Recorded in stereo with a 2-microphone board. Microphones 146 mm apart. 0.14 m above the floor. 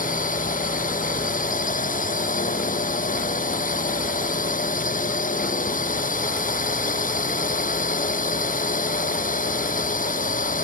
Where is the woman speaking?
I don't hear a woman speaking.